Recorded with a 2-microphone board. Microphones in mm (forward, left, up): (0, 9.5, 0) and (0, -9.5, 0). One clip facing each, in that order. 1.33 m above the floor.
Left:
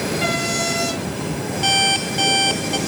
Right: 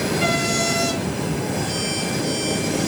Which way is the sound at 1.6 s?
75° left (ahead or behind).